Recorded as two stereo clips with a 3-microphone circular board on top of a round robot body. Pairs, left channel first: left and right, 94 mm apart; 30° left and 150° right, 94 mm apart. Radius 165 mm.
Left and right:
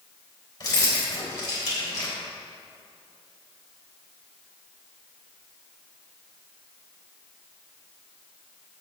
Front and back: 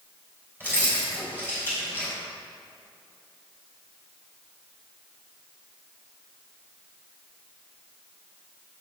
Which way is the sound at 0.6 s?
140° left.